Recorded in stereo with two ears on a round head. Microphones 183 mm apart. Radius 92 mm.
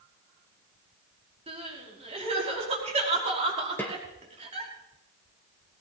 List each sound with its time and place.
1.5 s crying: 35° right (ahead or behind), 5 m
3.8 s a snare drum: 10° left (ahead or behind), 2.5 m